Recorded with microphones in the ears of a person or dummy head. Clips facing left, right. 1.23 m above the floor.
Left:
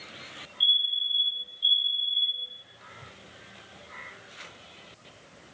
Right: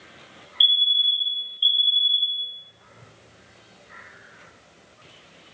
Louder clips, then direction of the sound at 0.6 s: Right 6 dB; 55° right (ahead or behind).